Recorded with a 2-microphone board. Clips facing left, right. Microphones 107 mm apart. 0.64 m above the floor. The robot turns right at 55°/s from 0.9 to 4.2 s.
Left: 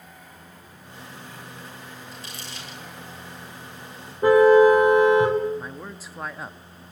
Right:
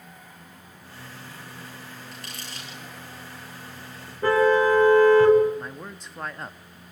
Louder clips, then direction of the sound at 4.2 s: Left 6 dB; 15° left (ahead or behind).